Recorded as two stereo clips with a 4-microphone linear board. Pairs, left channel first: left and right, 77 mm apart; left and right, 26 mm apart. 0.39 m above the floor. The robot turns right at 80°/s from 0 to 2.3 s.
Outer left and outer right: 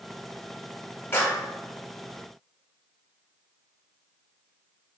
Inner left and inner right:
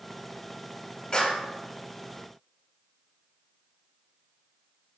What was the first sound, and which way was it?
A clap, 30° left (ahead or behind).